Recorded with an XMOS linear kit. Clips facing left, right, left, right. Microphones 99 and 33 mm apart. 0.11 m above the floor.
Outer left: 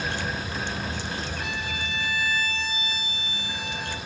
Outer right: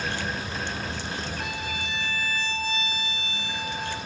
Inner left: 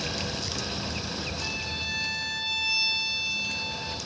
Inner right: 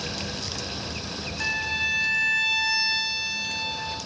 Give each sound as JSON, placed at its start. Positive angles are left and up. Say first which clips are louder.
{"t": 1.4, "sound": "a violin", "louder": "outer left 1 dB, inner right 10 dB", "side_deg": -50, "distance_m": 5.0}